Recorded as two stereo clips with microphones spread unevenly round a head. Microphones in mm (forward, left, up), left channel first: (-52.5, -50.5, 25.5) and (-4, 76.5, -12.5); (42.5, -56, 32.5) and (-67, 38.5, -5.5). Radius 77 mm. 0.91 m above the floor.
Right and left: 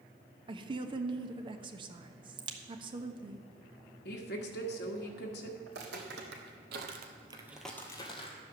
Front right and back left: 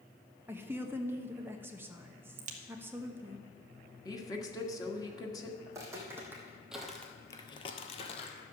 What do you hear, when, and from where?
0.5 s a woman speaking: 80° left, 1.0 m
2.4 s a crack: 115° left, 1.3 m
4.0 s a woman speaking: 110° right, 1.6 m
5.7 s footsteps: 65° left, 3 m; by 8.4 s 80° right, 2 m